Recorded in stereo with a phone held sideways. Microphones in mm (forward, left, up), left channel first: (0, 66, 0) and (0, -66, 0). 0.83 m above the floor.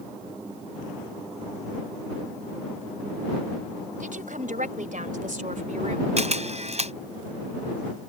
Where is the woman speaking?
85° right; by 6.1 s 65° right (ahead or behind).